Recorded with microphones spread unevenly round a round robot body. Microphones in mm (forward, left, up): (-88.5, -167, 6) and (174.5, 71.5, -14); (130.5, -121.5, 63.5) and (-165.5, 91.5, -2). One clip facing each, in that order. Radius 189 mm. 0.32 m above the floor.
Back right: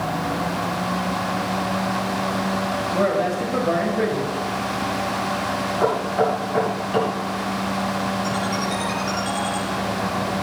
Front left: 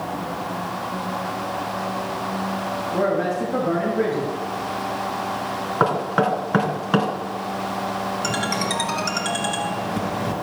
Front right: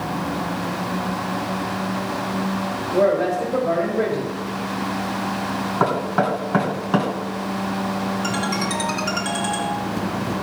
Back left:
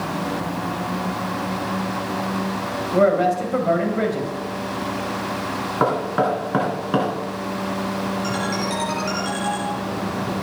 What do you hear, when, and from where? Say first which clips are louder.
2.9 s a man speaking: even, back left 1 dB; 125° left, 2.0 m
5.8 s knocking: back right 1 dB, back left 1 dB; 50° left, 3 m
8.2 s a ringtone: back right 1 dB, even; 35° left, 3 m